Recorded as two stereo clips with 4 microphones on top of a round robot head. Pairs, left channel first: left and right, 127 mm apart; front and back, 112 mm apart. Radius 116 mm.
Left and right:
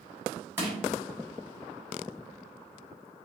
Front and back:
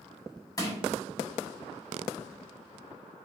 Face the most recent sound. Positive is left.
turn(degrees=-30)